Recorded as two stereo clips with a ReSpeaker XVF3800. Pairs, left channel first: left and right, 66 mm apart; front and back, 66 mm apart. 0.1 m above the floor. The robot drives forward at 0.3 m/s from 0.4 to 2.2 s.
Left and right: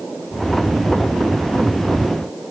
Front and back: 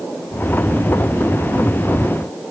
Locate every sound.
Only background noise.